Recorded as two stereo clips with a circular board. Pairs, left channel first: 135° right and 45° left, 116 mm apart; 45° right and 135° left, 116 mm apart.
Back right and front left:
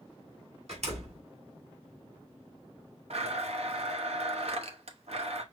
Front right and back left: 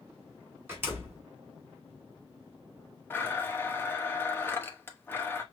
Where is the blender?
25° left, 1.0 m.